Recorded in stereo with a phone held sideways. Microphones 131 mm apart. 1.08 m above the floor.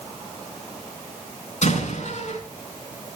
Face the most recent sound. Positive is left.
turn(degrees=65)  # may be behind; listen again after turning